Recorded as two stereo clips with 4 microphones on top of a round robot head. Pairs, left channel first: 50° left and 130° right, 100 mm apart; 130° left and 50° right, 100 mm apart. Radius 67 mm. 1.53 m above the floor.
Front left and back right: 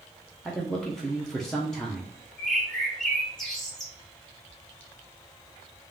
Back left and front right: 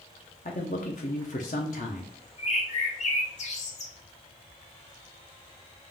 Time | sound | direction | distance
0.5 | a man speaking | 135° left | 0.6 m
2.4 | a bird | 135° left | 1.0 m